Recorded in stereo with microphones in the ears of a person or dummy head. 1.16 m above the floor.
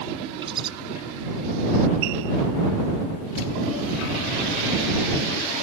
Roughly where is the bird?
Right.